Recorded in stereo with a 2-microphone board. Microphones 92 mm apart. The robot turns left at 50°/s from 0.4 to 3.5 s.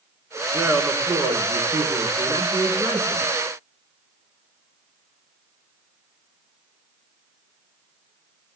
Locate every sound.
0.5 s a man speaking: 15° right, 6.5 m; by 3.3 s 155° right, 6.5 m